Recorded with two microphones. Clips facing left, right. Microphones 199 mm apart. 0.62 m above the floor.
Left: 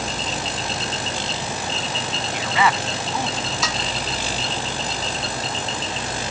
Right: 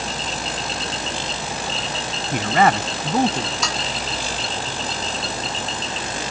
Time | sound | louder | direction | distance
2.3 | a man speaking | right 5 dB | 50° right (ahead or behind) | ?
3.6 | dishes clattering | even | centre (ahead or behind) | ?